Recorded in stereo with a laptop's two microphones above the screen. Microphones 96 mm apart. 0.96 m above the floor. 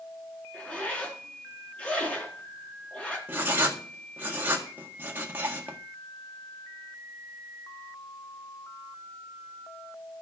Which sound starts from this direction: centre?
A zipper, at 0.5 s.